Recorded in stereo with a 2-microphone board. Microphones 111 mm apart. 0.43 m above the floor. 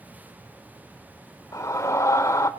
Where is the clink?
I don't hear a clink.